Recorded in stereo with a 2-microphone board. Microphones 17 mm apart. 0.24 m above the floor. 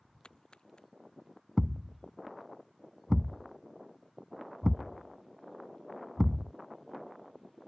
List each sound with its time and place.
0.2 s a splash: 60° left (ahead or behind)
1.6 s a thud: 25° right (ahead or behind)